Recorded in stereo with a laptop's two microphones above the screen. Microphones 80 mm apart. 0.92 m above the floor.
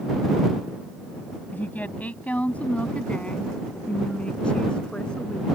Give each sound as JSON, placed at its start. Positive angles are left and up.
{"t": 1.5, "sound": "a woman speaking", "side_deg": 25}